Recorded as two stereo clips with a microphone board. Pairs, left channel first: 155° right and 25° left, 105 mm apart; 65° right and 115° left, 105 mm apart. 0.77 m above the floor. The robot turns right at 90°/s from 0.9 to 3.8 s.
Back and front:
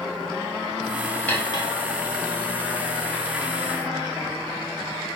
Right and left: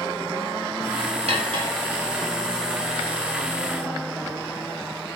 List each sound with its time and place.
1.3 s cutlery clinking: 125° left, 2 m; by 1.7 s 165° left, 2 m